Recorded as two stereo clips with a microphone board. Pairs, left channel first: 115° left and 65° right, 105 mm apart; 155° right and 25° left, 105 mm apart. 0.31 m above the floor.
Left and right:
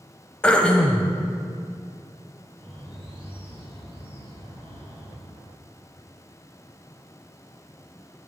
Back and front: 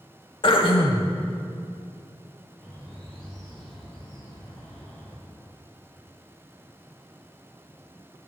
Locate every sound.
0.4 s throat clearing: 170° right, 0.7 m
2.6 s a bird: 75° right, 2.5 m